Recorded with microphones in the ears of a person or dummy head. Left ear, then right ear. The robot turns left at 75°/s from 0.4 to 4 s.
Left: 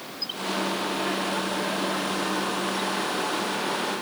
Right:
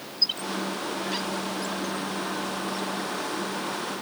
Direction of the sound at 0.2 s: 30° right (ahead or behind).